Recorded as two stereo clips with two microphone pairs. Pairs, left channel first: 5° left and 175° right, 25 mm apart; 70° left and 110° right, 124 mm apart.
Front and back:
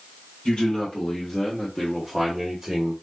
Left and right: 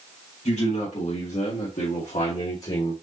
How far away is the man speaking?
About 1.8 m.